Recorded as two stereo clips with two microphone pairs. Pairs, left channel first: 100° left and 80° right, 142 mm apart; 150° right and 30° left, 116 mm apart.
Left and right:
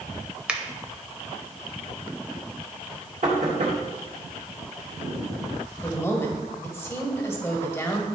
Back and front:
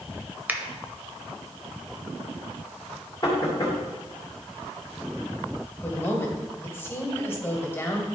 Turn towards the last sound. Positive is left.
turn(degrees=160)